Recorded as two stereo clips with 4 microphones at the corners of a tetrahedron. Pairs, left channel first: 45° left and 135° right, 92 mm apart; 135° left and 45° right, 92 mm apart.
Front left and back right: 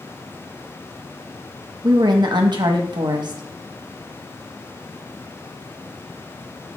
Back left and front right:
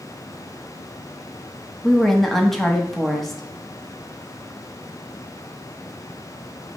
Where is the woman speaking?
140° right, 0.6 m.